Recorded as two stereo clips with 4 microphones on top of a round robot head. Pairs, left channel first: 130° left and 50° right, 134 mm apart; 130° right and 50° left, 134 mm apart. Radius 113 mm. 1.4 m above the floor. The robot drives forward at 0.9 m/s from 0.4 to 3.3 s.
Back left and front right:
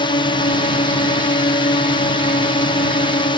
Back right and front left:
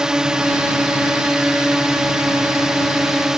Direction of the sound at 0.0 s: 135° left.